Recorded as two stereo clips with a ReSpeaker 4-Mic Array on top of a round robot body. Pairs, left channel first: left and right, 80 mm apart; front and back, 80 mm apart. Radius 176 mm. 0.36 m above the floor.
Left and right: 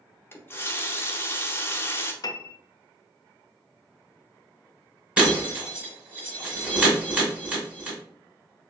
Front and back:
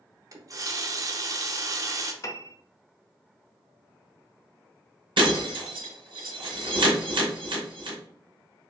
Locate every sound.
0.3 s a running tap: 145° left, 0.8 m
2.2 s a piano: 50° left, 0.5 m
5.2 s breaking glass: 165° right, 1.7 m